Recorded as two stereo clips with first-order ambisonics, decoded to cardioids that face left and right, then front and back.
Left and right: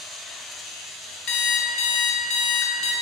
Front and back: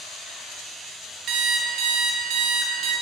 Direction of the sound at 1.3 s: 130° left.